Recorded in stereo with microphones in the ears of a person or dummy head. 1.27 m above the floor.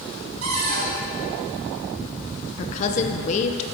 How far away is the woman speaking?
About 0.5 m.